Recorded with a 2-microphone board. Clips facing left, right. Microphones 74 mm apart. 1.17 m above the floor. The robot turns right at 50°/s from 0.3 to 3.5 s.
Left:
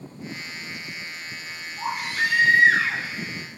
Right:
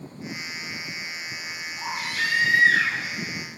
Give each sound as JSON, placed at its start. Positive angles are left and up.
{"t": 1.8, "sound": "a baby crying", "azimuth_deg": 25, "distance_m": 5.5}